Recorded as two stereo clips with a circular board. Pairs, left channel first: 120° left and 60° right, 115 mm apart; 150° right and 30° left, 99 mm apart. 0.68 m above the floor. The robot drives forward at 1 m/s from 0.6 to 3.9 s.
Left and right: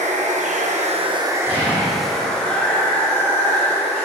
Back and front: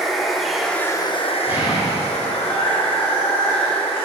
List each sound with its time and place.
0.0 s running water: 60° right, 0.7 m; by 4.1 s 170° right, 3 m
1.5 s an explosion: 95° left, 2.5 m; by 2.4 s 120° left, 2.5 m